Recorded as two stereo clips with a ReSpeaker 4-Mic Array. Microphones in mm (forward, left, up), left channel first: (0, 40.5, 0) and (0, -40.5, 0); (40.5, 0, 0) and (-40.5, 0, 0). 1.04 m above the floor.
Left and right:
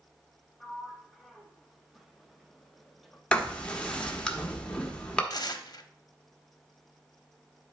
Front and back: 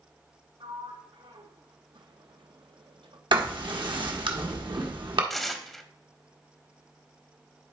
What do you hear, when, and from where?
0.6 s a sliding door: straight behind, 0.8 m
3.3 s writing: 170° left, 1.2 m
5.3 s tearing paper: 85° left, 0.7 m